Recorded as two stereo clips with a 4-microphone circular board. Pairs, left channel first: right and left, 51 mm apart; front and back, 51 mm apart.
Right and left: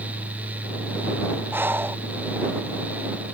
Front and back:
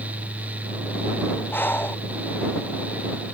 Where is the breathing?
45° left.